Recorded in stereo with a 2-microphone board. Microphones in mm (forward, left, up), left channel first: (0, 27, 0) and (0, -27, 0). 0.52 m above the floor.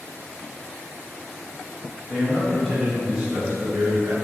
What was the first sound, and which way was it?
A man speaking, 15° left (ahead or behind).